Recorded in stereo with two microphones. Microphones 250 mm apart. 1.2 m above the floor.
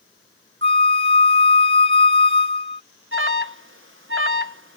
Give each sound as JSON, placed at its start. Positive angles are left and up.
{"t": 0.6, "sound": "a flute", "side_deg": -50}
{"t": 3.1, "sound": "an alarm", "side_deg": -55}